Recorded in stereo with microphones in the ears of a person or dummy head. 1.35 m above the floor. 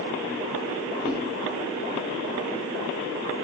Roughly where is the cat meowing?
Centre.